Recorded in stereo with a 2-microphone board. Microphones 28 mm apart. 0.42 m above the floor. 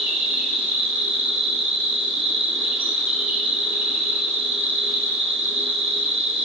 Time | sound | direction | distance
0.0 | an insect | 75° right (ahead or behind) | 2.5 m